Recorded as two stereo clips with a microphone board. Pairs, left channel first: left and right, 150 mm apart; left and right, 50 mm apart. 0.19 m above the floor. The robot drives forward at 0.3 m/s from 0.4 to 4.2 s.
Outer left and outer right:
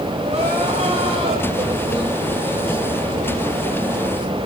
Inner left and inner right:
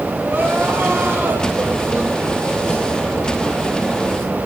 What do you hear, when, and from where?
0.2 s crying: 45° right (ahead or behind), 5 m; by 2.8 s 40° right (ahead or behind), 5.5 m